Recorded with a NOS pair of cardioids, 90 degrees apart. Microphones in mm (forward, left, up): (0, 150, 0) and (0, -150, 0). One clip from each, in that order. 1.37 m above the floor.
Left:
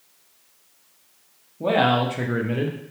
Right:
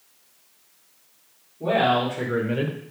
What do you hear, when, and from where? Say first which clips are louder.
1.6 s a man speaking: left 1 dB; 40° left, 1.4 m; by 2.8 s 20° right, 0.8 m